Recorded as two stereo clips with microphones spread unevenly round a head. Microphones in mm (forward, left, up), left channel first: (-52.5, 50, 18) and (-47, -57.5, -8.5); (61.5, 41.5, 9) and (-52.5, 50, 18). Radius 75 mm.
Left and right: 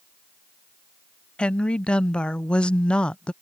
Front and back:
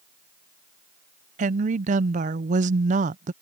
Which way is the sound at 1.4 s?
Straight behind.